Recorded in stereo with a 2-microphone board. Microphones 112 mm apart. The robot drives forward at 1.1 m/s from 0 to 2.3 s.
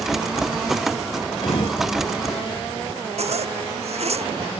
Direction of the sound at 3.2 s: 70° right (ahead or behind).